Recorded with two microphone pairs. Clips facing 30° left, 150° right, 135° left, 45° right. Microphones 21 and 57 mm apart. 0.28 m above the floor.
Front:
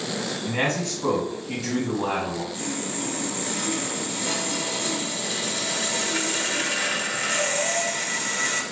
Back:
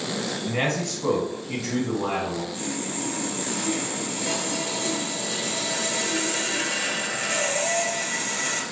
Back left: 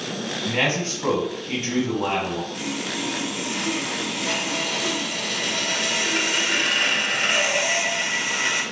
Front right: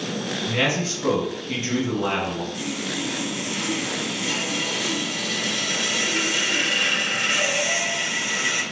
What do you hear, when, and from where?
0.5 s a man speaking: 115° left, 1.5 m
2.5 s sawing: 120° left, 0.9 m